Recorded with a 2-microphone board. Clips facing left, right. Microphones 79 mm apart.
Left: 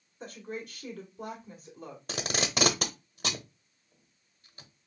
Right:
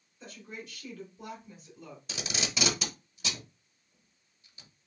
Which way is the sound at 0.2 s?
50° left (ahead or behind).